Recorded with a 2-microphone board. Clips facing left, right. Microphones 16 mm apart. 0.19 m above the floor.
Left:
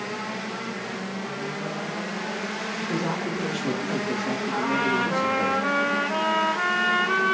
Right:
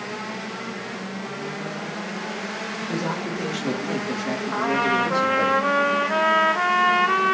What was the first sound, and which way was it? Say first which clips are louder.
A man speaking: even; 20° right (ahead or behind).